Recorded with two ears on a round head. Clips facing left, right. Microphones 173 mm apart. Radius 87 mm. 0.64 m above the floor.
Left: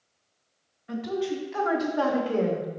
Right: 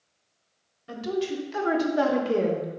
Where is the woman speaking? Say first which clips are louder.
Even; 55° right (ahead or behind), 1.7 m; by 2.8 s 10° right (ahead or behind), 0.9 m.